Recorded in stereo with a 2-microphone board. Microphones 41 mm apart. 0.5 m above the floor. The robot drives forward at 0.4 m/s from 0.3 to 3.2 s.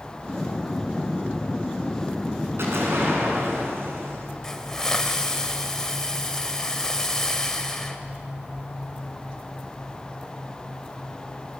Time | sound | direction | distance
2.6 | an explosion | 75° right (ahead or behind) | 6 m
4.4 | a hiss | 10° left (ahead or behind) | 1.6 m